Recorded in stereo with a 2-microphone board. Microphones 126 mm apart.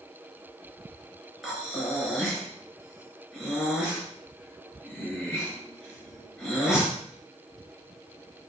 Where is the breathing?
5° right (ahead or behind), 5.5 m.